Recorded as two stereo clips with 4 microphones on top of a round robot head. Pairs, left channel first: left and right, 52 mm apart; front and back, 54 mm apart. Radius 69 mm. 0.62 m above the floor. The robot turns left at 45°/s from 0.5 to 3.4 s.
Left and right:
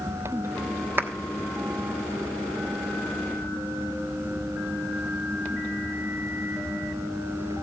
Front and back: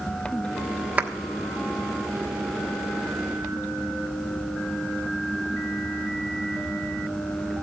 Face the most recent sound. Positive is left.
turn(degrees=130)